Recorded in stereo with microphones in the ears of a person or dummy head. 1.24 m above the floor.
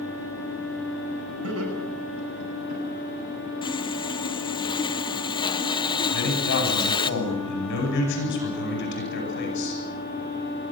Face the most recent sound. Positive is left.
turn(degrees=65)  # may be behind; listen again after turning